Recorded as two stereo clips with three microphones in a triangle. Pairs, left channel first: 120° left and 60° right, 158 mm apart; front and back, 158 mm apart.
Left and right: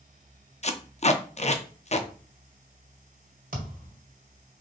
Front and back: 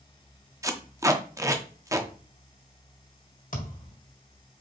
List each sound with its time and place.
0.6 s tape being pulled: 120° left, 0.6 m
3.5 s a thud: 30° right, 1.8 m